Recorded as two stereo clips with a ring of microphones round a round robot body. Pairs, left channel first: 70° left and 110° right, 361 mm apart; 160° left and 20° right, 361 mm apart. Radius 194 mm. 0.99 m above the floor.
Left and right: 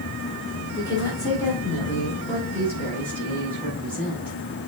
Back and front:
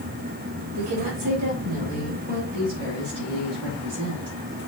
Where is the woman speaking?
15° right, 2.5 m; by 4.4 s 20° right, 5 m.